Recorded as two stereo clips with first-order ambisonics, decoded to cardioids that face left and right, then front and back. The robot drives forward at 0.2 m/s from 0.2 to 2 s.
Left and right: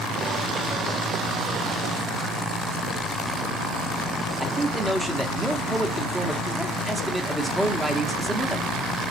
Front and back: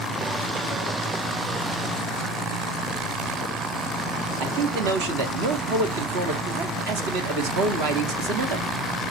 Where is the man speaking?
Straight behind, 1.4 m.